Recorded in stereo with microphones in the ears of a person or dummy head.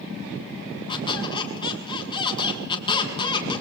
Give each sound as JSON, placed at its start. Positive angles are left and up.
{"t": 0.9, "sound": "a squeak", "side_deg": 25, "distance_m": 5.0}